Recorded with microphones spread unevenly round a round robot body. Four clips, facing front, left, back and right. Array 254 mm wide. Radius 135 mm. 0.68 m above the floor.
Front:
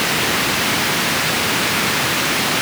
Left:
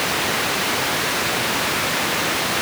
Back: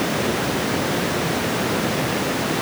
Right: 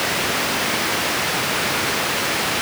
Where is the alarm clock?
No alarm clock in this recording.